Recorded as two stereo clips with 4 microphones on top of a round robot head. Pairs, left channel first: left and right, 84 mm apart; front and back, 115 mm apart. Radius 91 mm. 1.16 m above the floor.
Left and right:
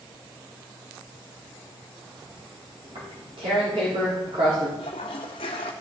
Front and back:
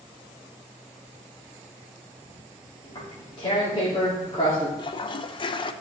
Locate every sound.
2.8 s tearing paper: 60° right, 3.5 m
4.8 s a toilet flushing: 45° left, 0.6 m